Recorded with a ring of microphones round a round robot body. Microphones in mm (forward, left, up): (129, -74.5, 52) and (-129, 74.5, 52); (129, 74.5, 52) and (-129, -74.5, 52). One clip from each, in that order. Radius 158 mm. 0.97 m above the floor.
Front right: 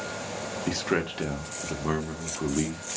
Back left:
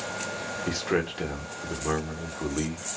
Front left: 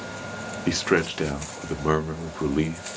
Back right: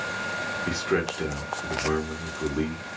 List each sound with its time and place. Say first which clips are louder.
0.7 s a man speaking: even, front left 6 dB; 55° left, 0.7 m